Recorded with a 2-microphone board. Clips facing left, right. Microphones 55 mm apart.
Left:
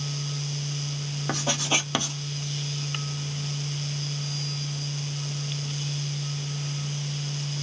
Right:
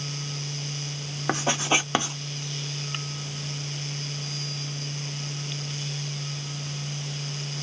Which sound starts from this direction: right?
Writing, at 1.3 s.